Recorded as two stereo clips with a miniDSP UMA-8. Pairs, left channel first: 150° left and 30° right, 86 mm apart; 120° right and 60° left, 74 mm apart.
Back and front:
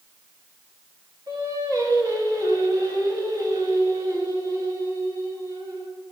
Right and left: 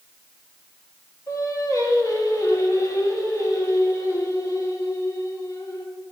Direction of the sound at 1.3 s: 75° right.